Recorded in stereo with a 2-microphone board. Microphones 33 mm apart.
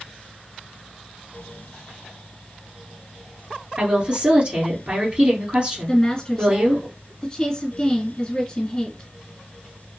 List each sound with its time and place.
3.8 s a woman speaking: 35° right (ahead or behind), 1.7 m
5.9 s a woman speaking: 20° left (ahead or behind), 1.6 m